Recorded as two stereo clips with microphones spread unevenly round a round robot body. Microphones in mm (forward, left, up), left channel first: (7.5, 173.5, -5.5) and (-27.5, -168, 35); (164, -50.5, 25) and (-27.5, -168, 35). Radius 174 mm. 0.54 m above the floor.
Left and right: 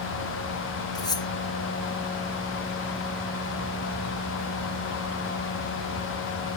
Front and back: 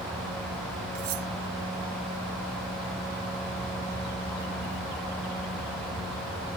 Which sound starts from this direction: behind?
Cutlery clinking, at 0.9 s.